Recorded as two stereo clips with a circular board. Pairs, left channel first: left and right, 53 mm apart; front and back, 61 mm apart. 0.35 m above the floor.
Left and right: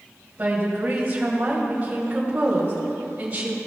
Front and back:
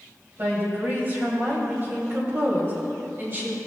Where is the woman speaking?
145° right, 2 m.